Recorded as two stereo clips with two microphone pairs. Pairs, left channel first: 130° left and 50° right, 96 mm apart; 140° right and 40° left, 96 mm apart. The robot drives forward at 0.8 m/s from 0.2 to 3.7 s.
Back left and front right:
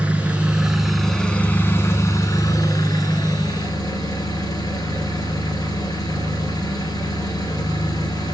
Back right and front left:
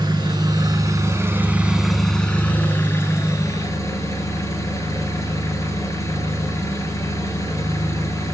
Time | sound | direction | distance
0.0 | an engine running | 20° left | 1.4 m